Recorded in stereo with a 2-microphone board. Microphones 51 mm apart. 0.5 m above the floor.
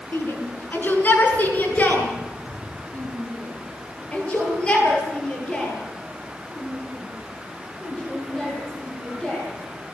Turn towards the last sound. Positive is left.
turn(degrees=10)  # may be behind; listen again after turning